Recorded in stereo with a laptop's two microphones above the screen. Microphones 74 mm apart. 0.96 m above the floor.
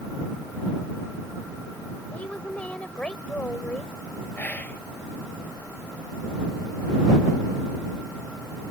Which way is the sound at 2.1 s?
15° left (ahead or behind).